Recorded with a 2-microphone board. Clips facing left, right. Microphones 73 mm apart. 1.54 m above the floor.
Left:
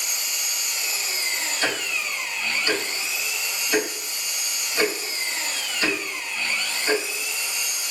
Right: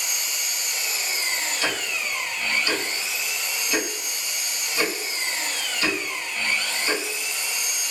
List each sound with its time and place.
0.0 s an engine running: 70° right (ahead or behind), 1.1 m
1.6 s ticking: 40° left (ahead or behind), 1.6 m